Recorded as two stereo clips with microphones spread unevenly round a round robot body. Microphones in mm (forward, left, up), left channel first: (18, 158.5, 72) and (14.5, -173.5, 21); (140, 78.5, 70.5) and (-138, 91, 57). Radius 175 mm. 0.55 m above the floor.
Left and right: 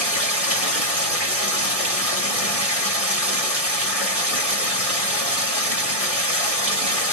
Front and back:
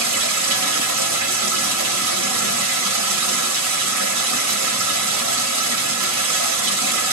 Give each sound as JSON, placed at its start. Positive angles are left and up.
{"t": 0.0, "sound": "running water", "azimuth_deg": -170, "distance_m": 1.4}